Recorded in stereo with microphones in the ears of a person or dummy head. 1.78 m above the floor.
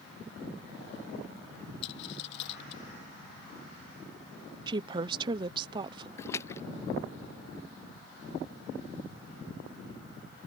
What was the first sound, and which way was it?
A dropped coin, 70° left (ahead or behind).